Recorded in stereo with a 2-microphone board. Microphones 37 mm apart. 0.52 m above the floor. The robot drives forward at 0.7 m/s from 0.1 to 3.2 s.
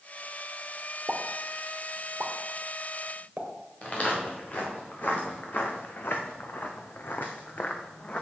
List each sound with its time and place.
1.1 s a pop: 50° right (ahead or behind), 1.2 m; by 3.5 s 30° right (ahead or behind), 2.0 m
3.8 s footsteps: 40° left (ahead or behind), 4 m; by 8.2 s 35° left (ahead or behind), 1.8 m